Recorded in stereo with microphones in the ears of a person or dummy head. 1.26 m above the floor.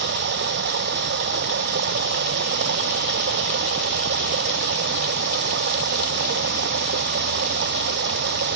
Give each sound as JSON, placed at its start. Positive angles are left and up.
{"t": 0.0, "sound": "running water", "side_deg": -55}